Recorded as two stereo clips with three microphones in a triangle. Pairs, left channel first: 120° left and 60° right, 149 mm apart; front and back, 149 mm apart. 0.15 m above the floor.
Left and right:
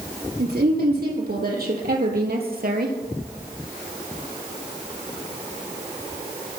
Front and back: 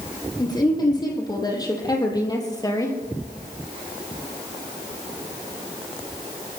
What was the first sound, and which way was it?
A woman speaking, 60° right.